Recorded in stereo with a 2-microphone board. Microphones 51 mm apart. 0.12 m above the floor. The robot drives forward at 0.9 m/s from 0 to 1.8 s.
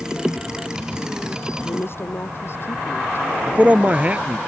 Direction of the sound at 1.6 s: 50° left (ahead or behind).